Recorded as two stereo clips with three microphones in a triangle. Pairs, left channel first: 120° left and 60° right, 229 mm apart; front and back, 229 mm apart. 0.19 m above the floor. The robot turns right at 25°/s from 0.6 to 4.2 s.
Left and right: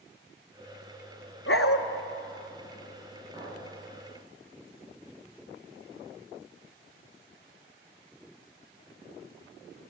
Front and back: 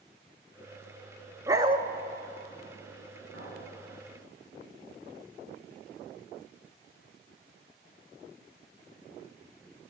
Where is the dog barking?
100° left, 0.8 m; by 1.8 s 110° left, 0.8 m.